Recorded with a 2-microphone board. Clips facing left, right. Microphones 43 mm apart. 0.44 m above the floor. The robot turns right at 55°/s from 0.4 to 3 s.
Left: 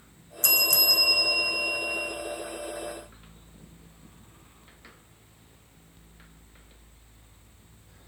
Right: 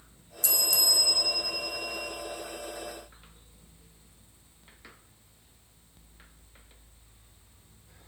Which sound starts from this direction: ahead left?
A bell, at 0.4 s.